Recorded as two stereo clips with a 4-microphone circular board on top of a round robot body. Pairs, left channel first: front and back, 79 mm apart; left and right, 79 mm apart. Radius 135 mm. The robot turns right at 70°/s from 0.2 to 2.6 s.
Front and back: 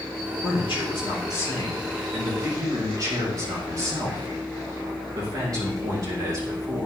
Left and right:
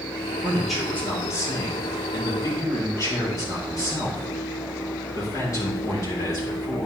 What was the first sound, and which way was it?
A man speaking, 15° right.